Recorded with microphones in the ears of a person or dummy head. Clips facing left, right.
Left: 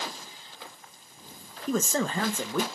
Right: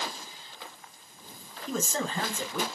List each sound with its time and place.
1.7 s a man speaking: 55° left (ahead or behind), 1.0 m